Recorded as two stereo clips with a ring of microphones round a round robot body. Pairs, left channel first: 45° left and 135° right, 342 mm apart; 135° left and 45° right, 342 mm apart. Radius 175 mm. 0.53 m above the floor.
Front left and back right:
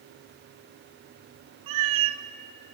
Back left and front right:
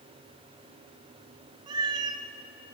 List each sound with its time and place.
1.7 s a cat meowing: 120° right, 0.6 m